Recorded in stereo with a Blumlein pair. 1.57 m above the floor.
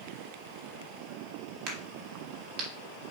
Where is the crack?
45° right, 3 m.